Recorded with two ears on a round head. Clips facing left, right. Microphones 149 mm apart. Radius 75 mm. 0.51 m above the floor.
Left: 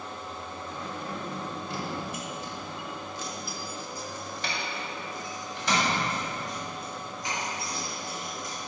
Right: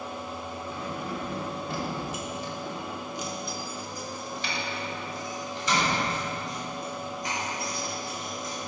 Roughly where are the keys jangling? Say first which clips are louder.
Right 2 dB; right.